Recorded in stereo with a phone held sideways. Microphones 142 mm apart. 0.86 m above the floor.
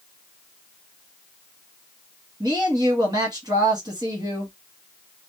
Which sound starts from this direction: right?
A woman speaking, at 2.4 s.